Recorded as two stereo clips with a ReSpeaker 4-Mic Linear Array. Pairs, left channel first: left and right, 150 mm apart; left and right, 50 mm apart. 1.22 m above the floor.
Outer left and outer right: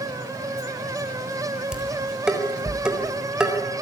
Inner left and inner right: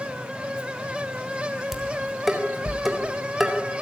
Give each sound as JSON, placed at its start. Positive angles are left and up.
{"t": 1.7, "sound": "dishes clattering", "side_deg": -5, "distance_m": 4.0}